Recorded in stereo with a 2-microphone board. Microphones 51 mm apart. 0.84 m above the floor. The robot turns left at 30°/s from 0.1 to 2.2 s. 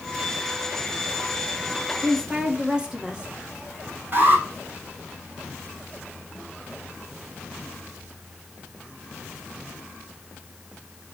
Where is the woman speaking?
25° right (ahead or behind), 1.5 m; by 3.3 s 20° right (ahead or behind), 1.5 m.